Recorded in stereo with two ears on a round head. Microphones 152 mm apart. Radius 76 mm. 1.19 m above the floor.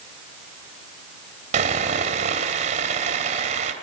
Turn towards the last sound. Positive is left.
turn(degrees=-45)  # may be behind; listen again after turning